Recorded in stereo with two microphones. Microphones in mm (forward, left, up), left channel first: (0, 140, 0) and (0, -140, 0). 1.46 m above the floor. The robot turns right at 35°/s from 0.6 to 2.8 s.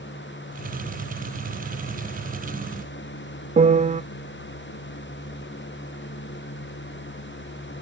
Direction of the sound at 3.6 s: 25° right (ahead or behind).